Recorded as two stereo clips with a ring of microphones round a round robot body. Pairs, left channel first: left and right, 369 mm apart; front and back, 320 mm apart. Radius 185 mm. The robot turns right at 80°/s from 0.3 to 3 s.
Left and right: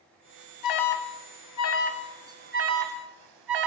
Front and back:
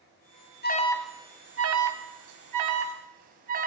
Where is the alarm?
55° left, 3 m; by 3.7 s 115° right, 3 m.